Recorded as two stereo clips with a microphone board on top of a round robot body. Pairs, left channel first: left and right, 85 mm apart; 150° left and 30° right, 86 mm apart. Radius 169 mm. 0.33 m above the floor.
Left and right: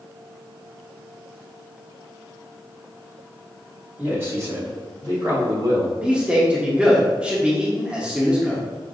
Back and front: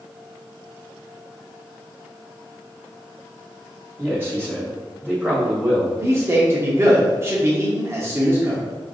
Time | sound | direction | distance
4.0 | a man speaking | 50° right | 1.5 m
6.0 | a man speaking | 25° right | 1.0 m